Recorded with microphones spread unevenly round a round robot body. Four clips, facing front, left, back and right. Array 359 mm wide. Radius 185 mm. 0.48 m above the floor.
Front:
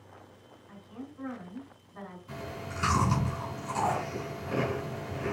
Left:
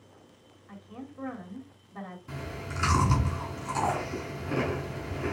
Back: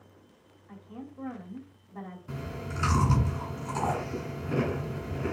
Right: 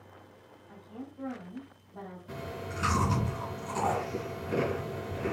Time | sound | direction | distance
0.7 | a woman speaking | 110° left | 2.5 m
2.3 | chewing | 135° left | 3.5 m